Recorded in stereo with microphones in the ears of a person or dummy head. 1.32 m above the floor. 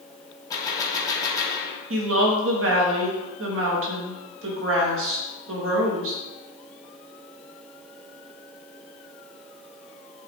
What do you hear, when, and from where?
0.5 s a gunshot: 20° left (ahead or behind), 0.8 m
1.9 s a woman speaking: 60° right (ahead or behind), 0.8 m